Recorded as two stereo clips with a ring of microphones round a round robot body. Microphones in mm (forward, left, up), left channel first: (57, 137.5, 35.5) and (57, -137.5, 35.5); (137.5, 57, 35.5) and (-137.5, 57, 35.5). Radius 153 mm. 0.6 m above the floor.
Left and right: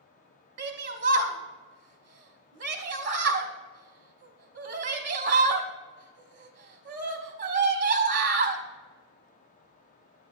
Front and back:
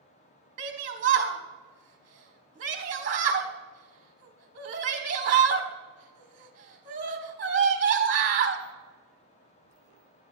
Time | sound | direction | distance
0.6 | a shout | 135° right | 0.8 m